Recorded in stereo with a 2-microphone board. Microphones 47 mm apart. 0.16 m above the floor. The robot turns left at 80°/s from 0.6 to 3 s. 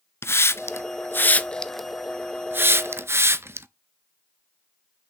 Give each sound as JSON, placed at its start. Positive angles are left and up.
{"t": 0.2, "sound": "a hiss", "side_deg": 65, "distance_m": 0.5}